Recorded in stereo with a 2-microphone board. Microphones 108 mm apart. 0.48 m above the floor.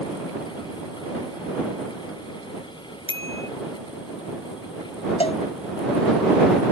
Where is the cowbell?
70° left (ahead or behind).